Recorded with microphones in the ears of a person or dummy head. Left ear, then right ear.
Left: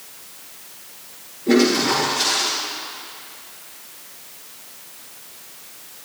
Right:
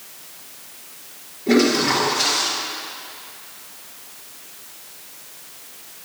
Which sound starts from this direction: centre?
A toilet flushing, at 1.5 s.